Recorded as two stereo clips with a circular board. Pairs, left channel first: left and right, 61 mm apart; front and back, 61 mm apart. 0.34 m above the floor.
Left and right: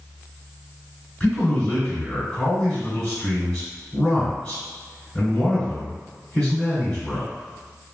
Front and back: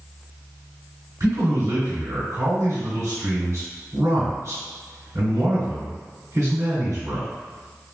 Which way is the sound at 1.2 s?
170° left.